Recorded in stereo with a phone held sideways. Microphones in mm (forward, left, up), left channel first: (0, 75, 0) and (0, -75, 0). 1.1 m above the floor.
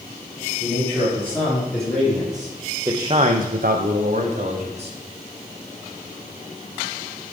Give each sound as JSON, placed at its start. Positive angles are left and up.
{"t": 0.6, "sound": "a man speaking", "side_deg": 10, "distance_m": 3.0}